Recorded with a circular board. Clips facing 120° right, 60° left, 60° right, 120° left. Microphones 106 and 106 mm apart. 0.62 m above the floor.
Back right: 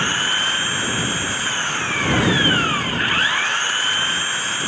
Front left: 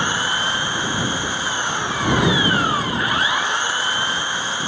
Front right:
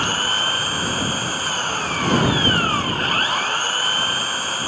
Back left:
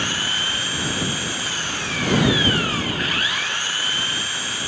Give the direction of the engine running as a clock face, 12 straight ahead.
12 o'clock.